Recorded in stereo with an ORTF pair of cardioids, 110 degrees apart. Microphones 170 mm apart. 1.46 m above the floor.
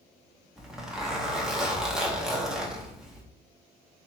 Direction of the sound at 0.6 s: 5° right.